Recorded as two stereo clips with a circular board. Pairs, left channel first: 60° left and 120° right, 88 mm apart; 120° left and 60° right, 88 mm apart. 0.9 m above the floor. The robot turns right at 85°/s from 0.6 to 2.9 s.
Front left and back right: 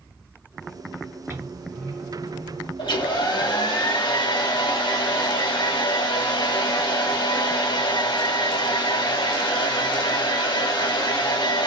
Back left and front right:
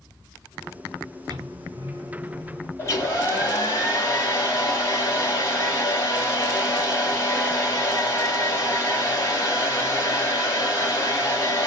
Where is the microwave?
60° right, 2.5 m; by 2.7 s 55° left, 2.5 m.